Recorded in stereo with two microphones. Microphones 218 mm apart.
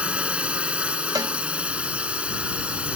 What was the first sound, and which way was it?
A drone, 5° right (ahead or behind).